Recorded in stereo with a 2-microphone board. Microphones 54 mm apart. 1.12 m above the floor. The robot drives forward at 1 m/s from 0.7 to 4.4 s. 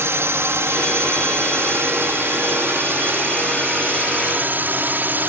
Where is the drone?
55° right (ahead or behind); by 5.3 s 40° right (ahead or behind).